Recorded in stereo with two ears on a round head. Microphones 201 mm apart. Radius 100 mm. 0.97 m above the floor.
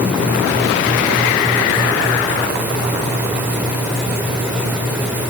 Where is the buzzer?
No buzzer in this recording.